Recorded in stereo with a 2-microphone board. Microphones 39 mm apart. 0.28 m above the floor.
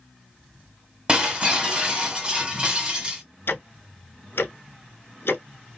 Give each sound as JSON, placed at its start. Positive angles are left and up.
{"t": 1.1, "sound": "breaking glass", "side_deg": -25, "distance_m": 1.3}
{"t": 3.5, "sound": "ticking", "side_deg": 80, "distance_m": 0.5}